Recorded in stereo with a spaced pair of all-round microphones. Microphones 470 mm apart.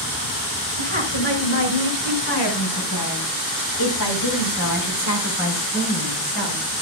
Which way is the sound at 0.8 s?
75° left (ahead or behind).